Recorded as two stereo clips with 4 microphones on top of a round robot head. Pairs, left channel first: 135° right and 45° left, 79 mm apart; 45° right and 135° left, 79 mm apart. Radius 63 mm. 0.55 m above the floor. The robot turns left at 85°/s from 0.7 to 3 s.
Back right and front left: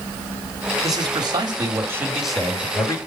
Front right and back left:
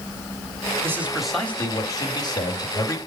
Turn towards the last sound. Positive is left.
turn(degrees=-100)